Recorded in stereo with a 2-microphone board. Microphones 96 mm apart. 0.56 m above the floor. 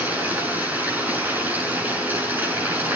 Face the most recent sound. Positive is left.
turn(degrees=-20)  # may be behind; listen again after turning